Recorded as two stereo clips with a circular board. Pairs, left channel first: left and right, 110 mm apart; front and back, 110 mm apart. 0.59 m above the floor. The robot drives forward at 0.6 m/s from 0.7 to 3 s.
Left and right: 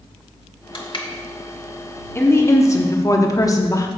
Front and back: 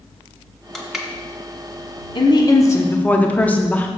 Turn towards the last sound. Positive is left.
turn(degrees=65)